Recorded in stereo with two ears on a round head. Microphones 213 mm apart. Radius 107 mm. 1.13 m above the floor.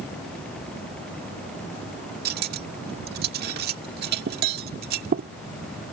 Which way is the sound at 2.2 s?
40° right (ahead or behind).